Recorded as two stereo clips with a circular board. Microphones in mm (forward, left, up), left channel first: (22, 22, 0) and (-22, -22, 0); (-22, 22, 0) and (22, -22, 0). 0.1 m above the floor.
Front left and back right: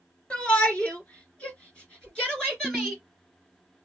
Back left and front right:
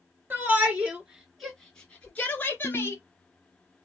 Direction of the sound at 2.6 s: 115° left.